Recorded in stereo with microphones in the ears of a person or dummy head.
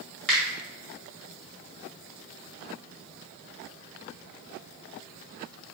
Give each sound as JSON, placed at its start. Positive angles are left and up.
{"t": 0.3, "sound": "a finger snap", "side_deg": 5, "distance_m": 1.6}